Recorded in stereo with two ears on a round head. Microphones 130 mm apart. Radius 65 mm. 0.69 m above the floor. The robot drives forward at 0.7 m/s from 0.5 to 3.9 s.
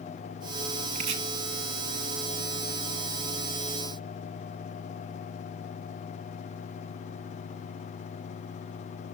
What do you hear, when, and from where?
0.9 s chopping: 55° right (ahead or behind), 1.3 m; by 1.2 s 50° right (ahead or behind), 1.4 m